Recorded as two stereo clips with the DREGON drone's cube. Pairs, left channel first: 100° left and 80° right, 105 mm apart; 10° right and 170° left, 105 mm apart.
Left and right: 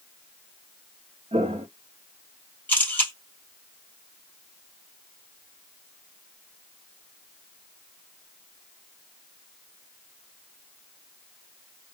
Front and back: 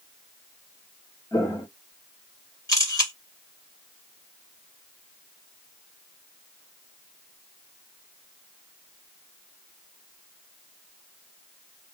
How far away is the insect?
I don't hear an insect.